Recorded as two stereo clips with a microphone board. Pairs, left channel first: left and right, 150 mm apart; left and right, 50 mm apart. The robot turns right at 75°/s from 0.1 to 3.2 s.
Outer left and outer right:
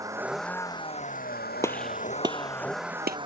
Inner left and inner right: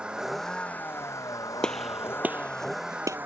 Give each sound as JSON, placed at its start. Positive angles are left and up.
{"t": 0.0, "sound": "a vehicle", "azimuth_deg": -20}
{"t": 1.6, "sound": "a gunshot", "side_deg": 20}